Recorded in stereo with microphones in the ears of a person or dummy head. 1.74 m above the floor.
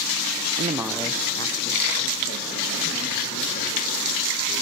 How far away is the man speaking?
About 0.7 m.